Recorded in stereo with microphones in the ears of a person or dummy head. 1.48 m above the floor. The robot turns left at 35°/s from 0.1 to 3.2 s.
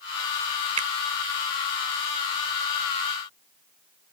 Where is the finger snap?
35° right (ahead or behind).